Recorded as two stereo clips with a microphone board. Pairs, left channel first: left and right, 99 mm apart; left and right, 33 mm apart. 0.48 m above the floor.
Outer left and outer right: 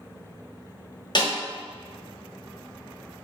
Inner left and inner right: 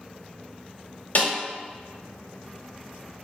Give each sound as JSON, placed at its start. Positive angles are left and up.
{"t": 1.1, "sound": "a snare drum", "side_deg": 50, "distance_m": 1.5}